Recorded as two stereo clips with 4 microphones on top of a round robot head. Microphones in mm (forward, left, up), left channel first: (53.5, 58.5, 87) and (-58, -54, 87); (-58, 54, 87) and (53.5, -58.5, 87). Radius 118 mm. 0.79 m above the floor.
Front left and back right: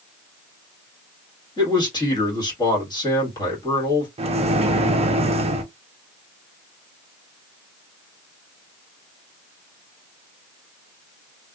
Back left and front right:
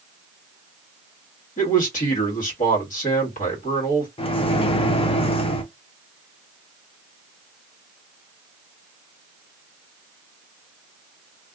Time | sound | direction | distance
1.6 | a man speaking | 105° left | 1.6 m
4.2 | a microwave | 175° right | 0.6 m